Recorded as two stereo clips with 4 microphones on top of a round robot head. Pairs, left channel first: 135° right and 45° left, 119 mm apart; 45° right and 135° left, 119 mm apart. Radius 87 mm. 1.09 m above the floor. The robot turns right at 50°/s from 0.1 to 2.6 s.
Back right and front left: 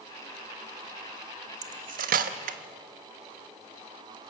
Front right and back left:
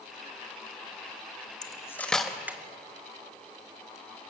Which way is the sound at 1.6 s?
15° left.